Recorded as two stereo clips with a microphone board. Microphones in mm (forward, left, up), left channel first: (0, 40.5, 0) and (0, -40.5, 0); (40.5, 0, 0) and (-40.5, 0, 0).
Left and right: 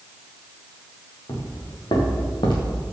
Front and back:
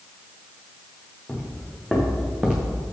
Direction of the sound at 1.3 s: 70° left.